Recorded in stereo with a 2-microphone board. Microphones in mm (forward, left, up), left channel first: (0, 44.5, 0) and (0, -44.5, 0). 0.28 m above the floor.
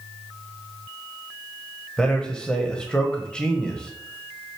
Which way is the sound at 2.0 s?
10° left (ahead or behind).